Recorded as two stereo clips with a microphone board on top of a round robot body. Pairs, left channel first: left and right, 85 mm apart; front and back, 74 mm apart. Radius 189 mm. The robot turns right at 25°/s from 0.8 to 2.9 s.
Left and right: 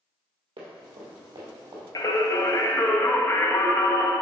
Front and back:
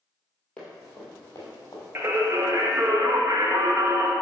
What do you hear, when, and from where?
0.6 s running footsteps: 75° right, 1.4 m; by 1.8 s 45° right, 2 m
1.9 s singing: 130° left, 1.0 m; by 4.1 s 150° left, 1.0 m